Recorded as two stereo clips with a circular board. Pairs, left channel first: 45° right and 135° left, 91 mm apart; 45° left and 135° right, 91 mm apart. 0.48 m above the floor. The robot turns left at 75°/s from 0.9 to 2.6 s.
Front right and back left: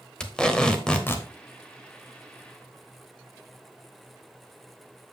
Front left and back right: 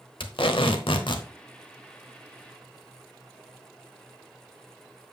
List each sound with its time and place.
0.2 s tape being pulled: 35° left, 1.1 m; by 1.3 s 10° left, 1.1 m